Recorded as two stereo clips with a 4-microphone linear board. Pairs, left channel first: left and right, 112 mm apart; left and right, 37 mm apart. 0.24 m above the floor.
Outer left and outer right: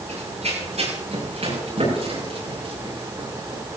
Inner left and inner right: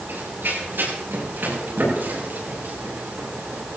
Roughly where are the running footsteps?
Right.